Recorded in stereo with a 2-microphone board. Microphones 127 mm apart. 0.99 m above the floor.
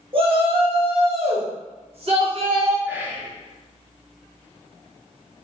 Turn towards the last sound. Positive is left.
turn(degrees=-15)  # may be behind; listen again after turning